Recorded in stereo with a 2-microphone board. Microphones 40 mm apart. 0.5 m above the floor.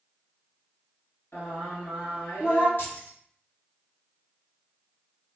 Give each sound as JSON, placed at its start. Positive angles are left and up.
{"t": 1.3, "sound": "singing", "side_deg": 80, "distance_m": 1.6}
{"t": 2.8, "sound": "keys jangling", "side_deg": 60, "distance_m": 1.5}